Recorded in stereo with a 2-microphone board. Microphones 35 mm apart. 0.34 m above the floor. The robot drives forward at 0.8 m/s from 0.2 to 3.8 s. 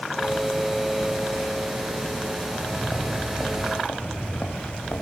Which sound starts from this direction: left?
Footsteps, at 2.4 s.